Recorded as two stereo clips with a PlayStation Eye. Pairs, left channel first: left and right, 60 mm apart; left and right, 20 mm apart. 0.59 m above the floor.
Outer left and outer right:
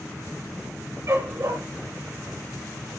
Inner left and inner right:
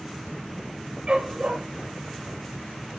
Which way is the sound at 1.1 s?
55° right (ahead or behind).